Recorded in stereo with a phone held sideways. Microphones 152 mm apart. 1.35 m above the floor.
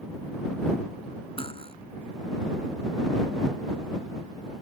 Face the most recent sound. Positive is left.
turn(degrees=35)  # may be behind; listen again after turning